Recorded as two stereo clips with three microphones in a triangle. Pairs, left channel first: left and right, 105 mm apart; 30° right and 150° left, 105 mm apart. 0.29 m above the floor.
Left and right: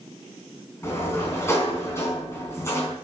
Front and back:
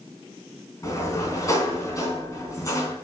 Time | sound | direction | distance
0.8 | a sliding door | 25° left | 3.5 m